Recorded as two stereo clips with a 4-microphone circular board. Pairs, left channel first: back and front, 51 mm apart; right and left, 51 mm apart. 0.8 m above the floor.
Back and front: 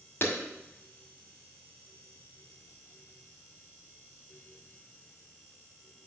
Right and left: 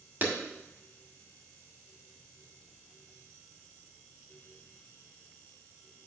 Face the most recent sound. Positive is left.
turn(degrees=140)